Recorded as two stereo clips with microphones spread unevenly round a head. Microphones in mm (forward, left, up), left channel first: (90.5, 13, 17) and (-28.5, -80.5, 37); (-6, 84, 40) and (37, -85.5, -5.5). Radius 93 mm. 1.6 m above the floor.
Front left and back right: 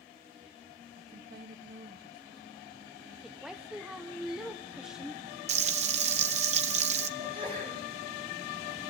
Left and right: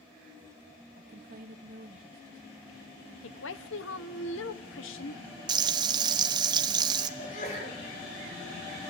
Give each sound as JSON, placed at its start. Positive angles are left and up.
{"t": 1.0, "sound": "a woman speaking", "azimuth_deg": -125, "distance_m": 1.6}
{"t": 3.2, "sound": "a woman speaking", "azimuth_deg": 130, "distance_m": 1.2}
{"t": 5.5, "sound": "frying", "azimuth_deg": -150, "distance_m": 1.1}
{"t": 7.2, "sound": "a sneeze", "azimuth_deg": 155, "distance_m": 8.5}